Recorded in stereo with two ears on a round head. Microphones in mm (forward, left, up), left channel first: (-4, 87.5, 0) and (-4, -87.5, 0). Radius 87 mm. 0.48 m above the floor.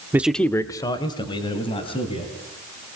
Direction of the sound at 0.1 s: 10° right (ahead or behind).